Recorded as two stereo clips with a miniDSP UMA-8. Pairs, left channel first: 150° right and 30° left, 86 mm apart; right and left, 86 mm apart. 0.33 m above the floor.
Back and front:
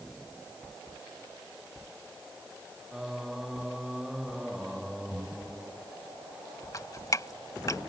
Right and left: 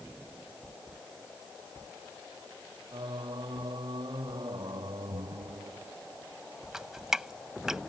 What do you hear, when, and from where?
2.9 s singing: 120° left
5.1 s breathing: 105° left
6.7 s dripping: 175° left